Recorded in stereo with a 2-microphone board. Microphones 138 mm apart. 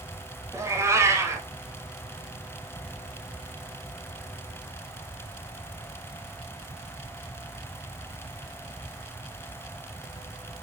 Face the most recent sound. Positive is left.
turn(degrees=-20)  # may be behind; listen again after turning